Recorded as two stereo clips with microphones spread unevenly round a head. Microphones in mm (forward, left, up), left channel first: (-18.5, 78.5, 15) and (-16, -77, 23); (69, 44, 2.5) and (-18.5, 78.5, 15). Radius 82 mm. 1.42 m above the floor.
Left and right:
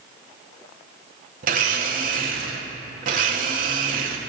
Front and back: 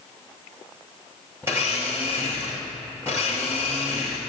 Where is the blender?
125° right, 2.5 m.